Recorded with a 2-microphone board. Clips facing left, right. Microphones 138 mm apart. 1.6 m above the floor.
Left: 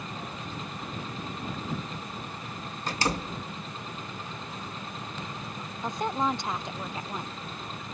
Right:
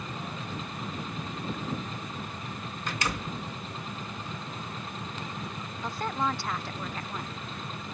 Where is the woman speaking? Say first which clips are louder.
Left 2 dB; 20° left (ahead or behind).